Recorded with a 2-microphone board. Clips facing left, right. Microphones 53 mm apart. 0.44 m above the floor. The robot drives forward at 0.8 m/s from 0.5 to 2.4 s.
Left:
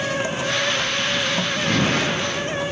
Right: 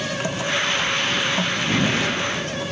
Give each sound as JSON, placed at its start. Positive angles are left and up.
{"t": 1.7, "sound": "an explosion", "side_deg": 55, "distance_m": 7.5}